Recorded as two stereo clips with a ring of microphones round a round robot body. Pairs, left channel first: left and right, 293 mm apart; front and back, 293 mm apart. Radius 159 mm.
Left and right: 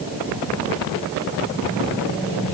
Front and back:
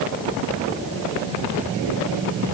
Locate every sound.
Only background noise.